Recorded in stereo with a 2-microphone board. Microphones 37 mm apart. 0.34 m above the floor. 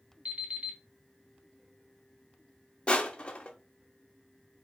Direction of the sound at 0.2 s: 30° right (ahead or behind).